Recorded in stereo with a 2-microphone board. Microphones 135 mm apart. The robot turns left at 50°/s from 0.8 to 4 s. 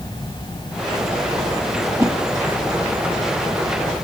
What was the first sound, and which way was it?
A whoosh, 20° right (ahead or behind).